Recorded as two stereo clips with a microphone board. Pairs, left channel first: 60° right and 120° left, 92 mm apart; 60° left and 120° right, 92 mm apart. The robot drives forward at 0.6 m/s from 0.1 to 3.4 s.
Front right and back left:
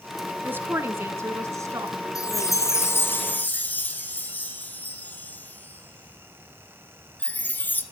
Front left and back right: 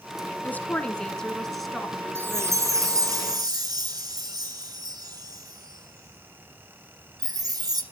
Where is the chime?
75° right, 1.3 m; by 7.8 s 120° right, 1.4 m.